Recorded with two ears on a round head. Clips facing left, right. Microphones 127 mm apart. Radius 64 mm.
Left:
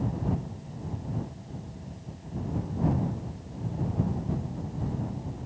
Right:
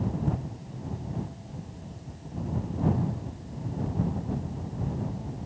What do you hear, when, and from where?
Only background noise.